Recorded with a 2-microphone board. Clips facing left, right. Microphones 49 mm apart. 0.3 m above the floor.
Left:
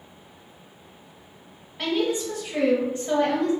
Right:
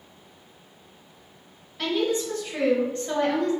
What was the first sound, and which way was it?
A woman speaking, 20° left (ahead or behind).